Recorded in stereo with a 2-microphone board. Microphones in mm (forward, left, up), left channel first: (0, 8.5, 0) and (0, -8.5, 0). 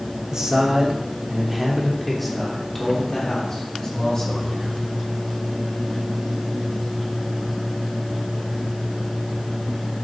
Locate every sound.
0.3 s a man speaking: 40° right (ahead or behind), 3 m; by 4.8 s 40° left (ahead or behind), 5 m